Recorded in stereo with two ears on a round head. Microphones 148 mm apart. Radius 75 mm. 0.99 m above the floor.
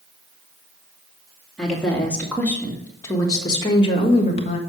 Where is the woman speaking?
5° left (ahead or behind), 2.5 m; by 4.6 s 45° left (ahead or behind), 1.4 m.